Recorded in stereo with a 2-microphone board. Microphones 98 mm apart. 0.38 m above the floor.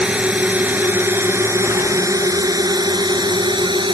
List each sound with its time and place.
0.0 s a drone: 10° right (ahead or behind); by 3.9 s 55° right (ahead or behind)